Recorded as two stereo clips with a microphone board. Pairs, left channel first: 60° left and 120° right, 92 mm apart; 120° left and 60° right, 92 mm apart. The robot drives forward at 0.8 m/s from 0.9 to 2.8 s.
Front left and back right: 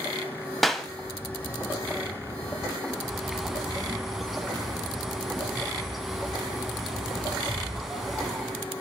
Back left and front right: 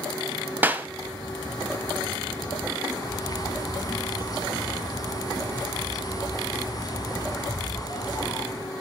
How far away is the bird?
About 1.3 m.